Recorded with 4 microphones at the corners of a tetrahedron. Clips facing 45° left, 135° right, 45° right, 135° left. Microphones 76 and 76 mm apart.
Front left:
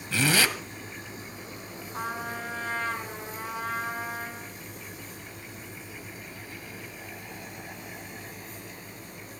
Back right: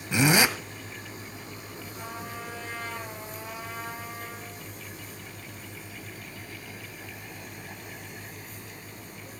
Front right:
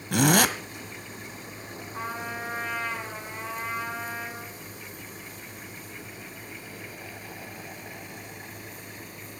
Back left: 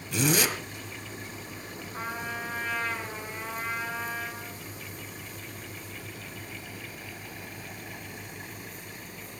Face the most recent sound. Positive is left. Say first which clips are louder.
# front left 6 dB, front right 1 dB
turn(degrees=30)